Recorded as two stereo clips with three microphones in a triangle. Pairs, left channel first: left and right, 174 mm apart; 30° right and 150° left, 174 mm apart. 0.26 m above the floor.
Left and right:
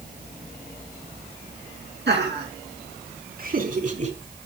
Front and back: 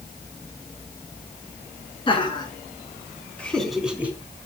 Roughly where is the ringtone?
No ringtone in this recording.